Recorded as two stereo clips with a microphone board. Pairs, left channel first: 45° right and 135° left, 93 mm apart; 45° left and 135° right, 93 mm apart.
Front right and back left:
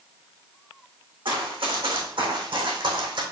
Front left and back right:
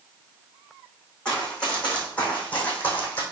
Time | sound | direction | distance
1.2 | running footsteps | 125° left | 4 m